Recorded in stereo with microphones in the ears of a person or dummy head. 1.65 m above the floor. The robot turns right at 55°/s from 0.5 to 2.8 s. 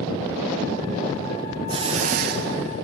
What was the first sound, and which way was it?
A hiss, 150° right.